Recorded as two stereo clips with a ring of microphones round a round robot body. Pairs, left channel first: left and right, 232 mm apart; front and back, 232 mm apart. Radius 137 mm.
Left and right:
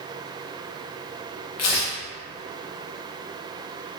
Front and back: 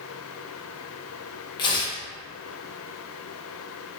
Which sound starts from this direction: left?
Tearing paper, at 1.6 s.